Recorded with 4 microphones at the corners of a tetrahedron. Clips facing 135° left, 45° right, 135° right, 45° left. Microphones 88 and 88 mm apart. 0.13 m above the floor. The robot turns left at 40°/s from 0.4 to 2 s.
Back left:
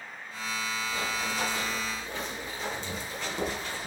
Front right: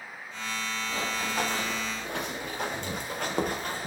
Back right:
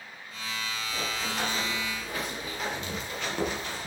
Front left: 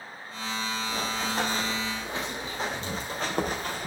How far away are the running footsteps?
About 5 m.